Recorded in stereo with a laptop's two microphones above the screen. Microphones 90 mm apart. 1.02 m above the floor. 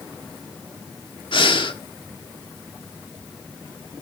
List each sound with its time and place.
1.3 s breathing: 70° left (ahead or behind), 1.3 m